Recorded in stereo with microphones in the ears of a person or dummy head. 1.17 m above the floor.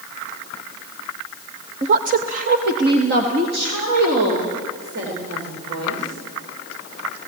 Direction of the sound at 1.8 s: 35° right (ahead or behind).